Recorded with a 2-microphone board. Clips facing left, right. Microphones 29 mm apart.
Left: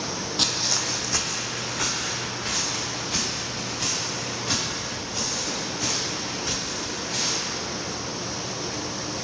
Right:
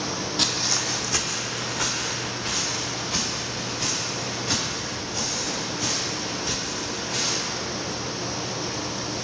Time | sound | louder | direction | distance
0.4 | footsteps | even | centre (ahead or behind) | 0.5 m